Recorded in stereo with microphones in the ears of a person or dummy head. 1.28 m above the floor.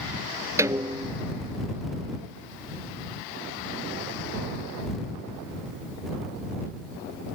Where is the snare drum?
10° right (ahead or behind).